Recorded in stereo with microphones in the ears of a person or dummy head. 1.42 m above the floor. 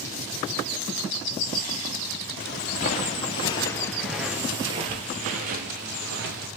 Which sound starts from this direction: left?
Footsteps, at 2.4 s.